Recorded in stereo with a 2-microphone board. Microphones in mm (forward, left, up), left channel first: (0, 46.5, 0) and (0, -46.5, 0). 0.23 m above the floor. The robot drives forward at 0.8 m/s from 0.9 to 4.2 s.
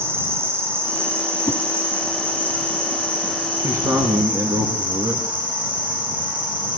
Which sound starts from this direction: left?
A whoosh, at 1.5 s.